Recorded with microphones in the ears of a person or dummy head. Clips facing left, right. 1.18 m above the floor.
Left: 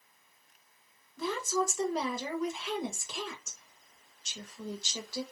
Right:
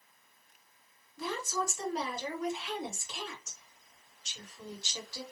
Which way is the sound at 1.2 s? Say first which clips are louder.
Left 4 dB; 70° left (ahead or behind).